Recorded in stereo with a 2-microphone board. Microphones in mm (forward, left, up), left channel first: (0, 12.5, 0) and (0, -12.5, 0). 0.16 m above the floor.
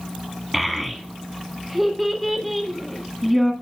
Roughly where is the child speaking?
Centre.